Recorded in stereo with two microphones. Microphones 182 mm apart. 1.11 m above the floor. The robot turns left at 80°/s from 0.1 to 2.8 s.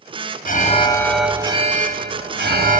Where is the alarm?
60° left, 1.5 m; by 2.8 s 130° right, 1.5 m.